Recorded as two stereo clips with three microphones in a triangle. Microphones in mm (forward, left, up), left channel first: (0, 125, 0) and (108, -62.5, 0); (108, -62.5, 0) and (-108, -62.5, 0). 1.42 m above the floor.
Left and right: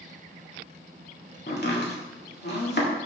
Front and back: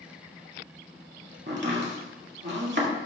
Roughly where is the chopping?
Behind left.